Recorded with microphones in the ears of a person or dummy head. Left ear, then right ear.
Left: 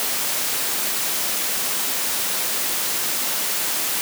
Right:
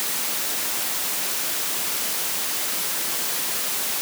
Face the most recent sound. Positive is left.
No sound to turn to.